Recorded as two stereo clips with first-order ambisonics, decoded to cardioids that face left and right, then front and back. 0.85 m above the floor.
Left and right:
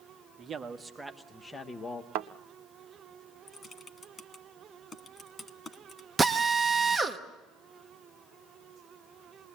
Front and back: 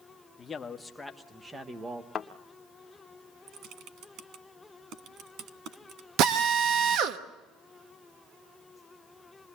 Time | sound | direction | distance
0.4 | a man speaking | 55° right | 1.0 m
2.1 | a thud | 65° right | 0.8 m
3.5 | typing on a keyboard | 160° left | 1.1 m
6.2 | a drill | 170° right | 1.0 m